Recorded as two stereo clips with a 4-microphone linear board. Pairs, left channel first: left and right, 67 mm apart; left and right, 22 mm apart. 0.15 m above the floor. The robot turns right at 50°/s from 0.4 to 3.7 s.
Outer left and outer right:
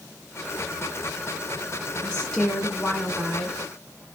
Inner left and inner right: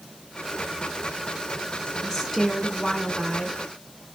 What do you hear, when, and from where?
2.0 s a woman speaking: 15° left (ahead or behind), 1.6 m; by 3.6 s 15° right (ahead or behind), 1.6 m